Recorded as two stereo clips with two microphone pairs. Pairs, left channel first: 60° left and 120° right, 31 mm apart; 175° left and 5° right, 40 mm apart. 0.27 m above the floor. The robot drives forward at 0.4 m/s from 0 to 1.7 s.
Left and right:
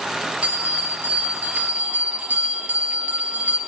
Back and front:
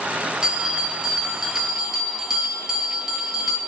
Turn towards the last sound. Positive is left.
turn(degrees=-90)